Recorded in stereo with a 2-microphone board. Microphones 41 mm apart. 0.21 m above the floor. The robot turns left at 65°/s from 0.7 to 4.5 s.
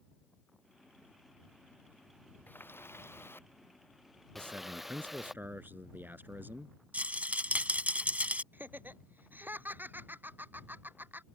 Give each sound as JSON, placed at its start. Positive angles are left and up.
{"t": 2.5, "sound": "a running tap", "azimuth_deg": 130}
{"t": 4.3, "sound": "a man speaking", "side_deg": -60}
{"t": 6.9, "sound": "a rattle", "side_deg": -40}
{"t": 8.5, "sound": "laughter", "side_deg": -50}